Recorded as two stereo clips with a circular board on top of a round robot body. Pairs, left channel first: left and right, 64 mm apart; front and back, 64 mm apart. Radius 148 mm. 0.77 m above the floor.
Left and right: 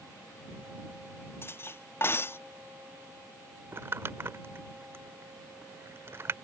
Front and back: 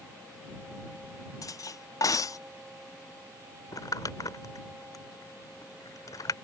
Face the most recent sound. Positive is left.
turn(degrees=-35)